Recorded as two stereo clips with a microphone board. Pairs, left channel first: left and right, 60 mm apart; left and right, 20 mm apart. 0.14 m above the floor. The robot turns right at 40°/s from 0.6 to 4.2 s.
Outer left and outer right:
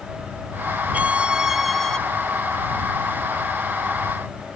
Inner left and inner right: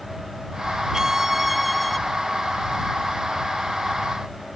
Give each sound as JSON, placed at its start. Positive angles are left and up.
{"t": 0.9, "sound": "a violin", "azimuth_deg": -35}